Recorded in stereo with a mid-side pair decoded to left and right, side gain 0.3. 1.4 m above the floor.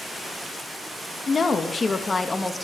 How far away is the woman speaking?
About 2 m.